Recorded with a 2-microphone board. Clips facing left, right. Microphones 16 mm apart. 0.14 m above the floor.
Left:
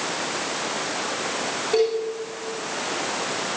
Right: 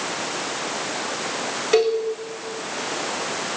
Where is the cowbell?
65° right (ahead or behind), 8 m.